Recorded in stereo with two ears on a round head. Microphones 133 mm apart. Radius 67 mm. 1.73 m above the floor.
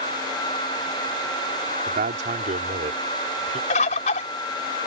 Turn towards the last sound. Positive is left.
turn(degrees=50)  # may be behind; listen again after turning